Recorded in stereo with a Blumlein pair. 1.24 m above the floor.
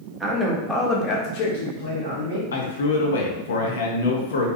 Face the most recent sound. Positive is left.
turn(degrees=65)